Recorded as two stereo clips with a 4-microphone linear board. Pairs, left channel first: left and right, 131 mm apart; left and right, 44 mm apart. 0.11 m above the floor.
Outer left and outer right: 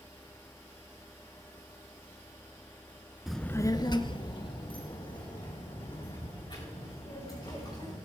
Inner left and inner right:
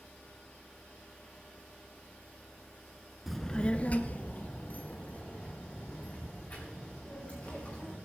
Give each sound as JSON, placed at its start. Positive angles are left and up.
{"t": 3.3, "sound": "a child speaking", "side_deg": -5, "distance_m": 0.7}